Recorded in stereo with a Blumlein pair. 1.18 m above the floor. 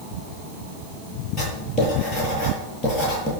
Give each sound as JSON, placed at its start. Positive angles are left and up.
{"t": 1.4, "sound": "writing", "azimuth_deg": 30, "distance_m": 9.0}